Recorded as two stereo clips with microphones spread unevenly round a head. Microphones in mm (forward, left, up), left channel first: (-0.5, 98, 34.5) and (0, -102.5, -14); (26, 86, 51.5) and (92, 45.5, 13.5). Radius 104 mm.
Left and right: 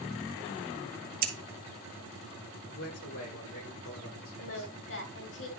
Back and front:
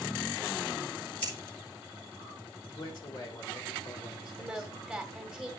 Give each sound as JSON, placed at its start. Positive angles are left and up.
{"t": 1.2, "sound": "scissors", "azimuth_deg": -120, "distance_m": 1.8}
{"t": 2.7, "sound": "a man speaking", "azimuth_deg": 110, "distance_m": 4.0}
{"t": 4.4, "sound": "singing", "azimuth_deg": 60, "distance_m": 2.5}